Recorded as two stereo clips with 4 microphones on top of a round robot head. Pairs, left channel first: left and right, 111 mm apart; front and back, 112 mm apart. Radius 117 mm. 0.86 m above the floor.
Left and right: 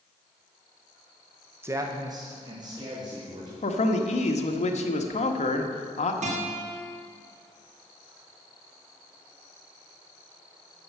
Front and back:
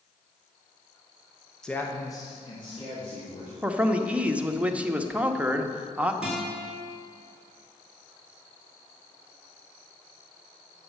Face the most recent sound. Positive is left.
turn(degrees=-95)